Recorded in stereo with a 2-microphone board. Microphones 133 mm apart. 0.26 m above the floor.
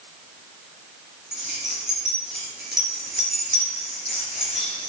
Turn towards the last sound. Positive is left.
turn(degrees=-5)  # may be behind; listen again after turning